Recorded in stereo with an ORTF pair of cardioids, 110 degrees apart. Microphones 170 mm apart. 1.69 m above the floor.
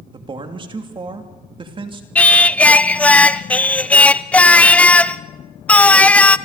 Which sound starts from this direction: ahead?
Singing, at 2.1 s.